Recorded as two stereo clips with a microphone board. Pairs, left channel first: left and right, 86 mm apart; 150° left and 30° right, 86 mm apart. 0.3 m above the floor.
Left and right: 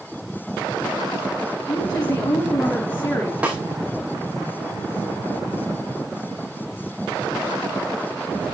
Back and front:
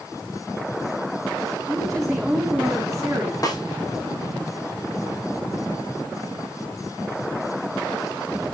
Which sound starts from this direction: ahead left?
A woman speaking, at 1.7 s.